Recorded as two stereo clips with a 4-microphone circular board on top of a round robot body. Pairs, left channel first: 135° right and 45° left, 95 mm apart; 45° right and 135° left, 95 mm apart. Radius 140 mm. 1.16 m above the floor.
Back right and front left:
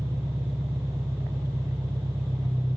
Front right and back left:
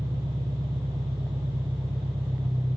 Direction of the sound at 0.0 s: 105° left.